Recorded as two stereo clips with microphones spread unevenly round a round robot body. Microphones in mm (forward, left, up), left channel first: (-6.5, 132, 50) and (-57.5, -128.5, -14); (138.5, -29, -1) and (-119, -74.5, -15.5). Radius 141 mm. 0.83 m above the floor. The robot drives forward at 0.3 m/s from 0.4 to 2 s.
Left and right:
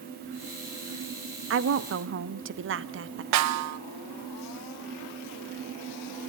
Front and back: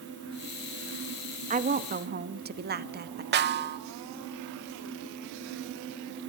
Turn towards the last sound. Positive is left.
turn(degrees=-125)